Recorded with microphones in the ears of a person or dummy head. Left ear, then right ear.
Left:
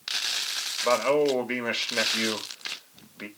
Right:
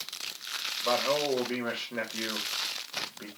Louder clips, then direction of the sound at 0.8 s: Left 5 dB; 65° left (ahead or behind).